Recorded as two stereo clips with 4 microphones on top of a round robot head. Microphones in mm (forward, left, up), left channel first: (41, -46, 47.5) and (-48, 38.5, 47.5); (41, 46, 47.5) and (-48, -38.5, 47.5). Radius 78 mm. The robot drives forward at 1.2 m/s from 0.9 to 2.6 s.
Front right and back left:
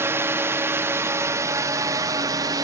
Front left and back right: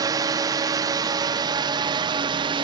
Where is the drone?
165° right; by 2.6 s 170° right.